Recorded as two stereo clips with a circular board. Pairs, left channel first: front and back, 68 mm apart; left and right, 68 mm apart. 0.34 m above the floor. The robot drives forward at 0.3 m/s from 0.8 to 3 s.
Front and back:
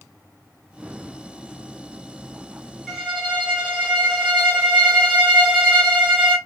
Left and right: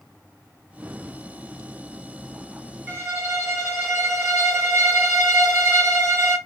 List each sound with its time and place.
2.9 s a violin: 90° right, 1.3 m